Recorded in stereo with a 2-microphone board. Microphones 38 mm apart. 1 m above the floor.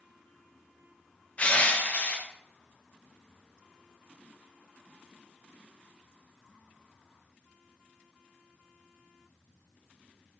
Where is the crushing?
35° left (ahead or behind), 0.6 m.